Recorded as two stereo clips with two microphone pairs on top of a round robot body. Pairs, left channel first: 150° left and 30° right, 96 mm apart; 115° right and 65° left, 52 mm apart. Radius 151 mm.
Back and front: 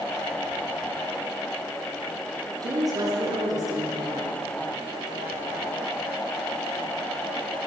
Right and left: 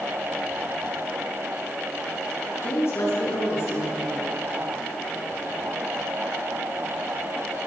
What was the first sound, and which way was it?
A woman speaking, 80° right.